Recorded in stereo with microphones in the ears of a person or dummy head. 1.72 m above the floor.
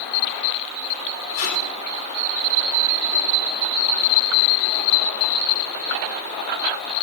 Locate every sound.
1.3 s tape being pulled: 80° left, 5 m